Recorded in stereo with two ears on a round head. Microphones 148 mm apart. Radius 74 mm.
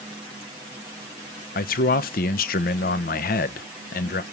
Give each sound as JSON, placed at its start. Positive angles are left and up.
{"t": 1.6, "sound": "a man speaking", "side_deg": 55, "distance_m": 0.9}